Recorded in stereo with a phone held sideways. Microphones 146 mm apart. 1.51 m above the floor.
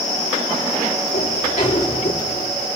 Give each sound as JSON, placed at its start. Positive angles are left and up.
{"t": 1.1, "sound": "a sliding door", "side_deg": 55, "distance_m": 3.0}